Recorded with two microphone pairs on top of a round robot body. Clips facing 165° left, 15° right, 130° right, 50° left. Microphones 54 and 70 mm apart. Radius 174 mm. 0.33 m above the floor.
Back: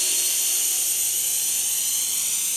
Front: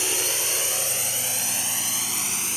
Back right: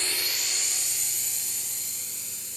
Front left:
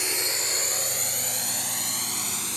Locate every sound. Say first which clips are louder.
0.0 s a drone: front 4 dB, front left 3 dB; 25° right; by 2.6 s 30° left